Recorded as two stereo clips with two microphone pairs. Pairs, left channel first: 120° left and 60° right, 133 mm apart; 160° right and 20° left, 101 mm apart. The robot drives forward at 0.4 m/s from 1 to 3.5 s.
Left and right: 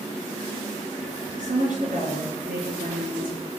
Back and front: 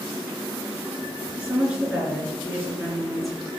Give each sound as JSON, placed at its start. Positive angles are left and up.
{"t": 1.4, "sound": "a woman speaking", "azimuth_deg": -60, "distance_m": 3.5}